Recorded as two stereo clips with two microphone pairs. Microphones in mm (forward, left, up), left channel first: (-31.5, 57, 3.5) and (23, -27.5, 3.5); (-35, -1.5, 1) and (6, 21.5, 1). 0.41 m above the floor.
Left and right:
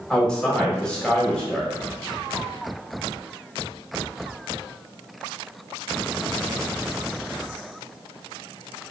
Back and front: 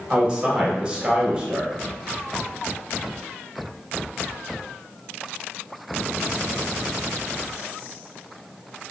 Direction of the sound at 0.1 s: 60° left.